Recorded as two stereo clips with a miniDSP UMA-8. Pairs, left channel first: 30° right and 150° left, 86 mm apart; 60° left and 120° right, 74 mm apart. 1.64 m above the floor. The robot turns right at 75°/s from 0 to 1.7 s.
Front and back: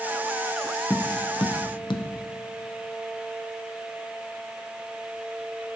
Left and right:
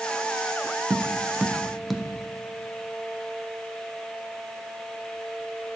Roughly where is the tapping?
Right.